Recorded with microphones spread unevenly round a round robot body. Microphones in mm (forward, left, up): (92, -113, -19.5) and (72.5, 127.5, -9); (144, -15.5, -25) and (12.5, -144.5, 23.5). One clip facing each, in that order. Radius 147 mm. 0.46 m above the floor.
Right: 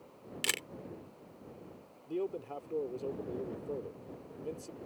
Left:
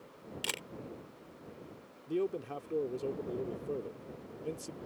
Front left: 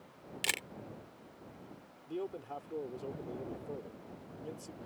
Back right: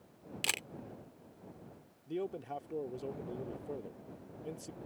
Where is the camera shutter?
30° right.